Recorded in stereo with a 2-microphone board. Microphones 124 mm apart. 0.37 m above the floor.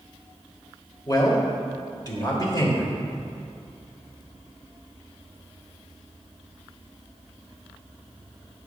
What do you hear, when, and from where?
1.1 s a man speaking: 35° left (ahead or behind), 1.3 m